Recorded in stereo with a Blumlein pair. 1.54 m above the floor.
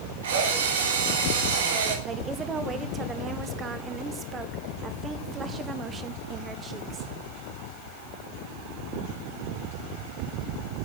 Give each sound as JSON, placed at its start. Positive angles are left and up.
{"t": 0.2, "sound": "a drill", "azimuth_deg": -60, "distance_m": 3.5}
{"t": 2.0, "sound": "a woman speaking", "azimuth_deg": -20, "distance_m": 1.4}